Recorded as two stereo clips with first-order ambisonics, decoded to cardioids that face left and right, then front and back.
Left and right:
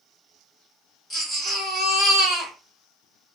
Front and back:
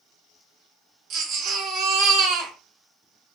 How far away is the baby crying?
About 2 m.